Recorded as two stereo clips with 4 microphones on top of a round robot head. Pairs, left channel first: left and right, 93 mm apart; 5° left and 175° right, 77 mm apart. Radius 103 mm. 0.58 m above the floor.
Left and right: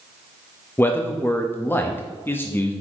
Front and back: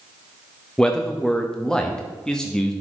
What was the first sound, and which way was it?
A man speaking, 70° left.